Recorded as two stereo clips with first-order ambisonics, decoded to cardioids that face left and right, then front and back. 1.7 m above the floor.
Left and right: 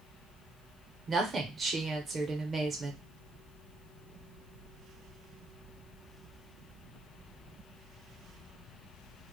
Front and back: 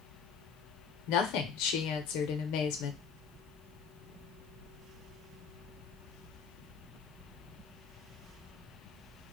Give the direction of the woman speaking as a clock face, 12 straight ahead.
1 o'clock.